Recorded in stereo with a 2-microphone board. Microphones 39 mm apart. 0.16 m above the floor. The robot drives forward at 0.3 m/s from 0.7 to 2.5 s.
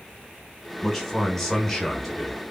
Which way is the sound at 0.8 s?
Centre (ahead or behind).